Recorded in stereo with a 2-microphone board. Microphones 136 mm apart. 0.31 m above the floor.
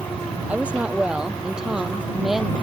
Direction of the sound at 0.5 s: 10° right (ahead or behind).